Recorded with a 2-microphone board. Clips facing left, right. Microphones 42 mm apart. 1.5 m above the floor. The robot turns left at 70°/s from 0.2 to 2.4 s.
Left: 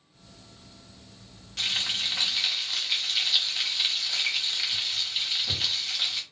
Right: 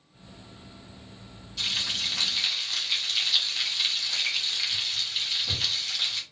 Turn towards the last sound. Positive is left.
turn(degrees=5)